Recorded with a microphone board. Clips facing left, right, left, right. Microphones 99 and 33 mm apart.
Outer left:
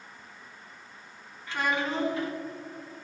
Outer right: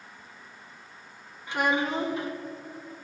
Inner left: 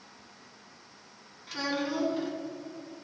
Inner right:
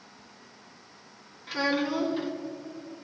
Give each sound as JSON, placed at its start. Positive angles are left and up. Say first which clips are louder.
{"t": 1.5, "sound": "a child speaking", "louder": "outer right 3 dB, inner right 4 dB", "side_deg": -20, "distance_m": 1.6}